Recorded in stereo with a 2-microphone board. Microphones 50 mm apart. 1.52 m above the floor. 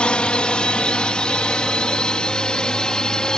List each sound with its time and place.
0.0 s a drone: 20° left (ahead or behind); by 3.4 s 15° left (ahead or behind)